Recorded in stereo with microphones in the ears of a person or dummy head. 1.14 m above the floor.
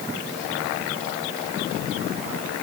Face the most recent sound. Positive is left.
No sound to turn to.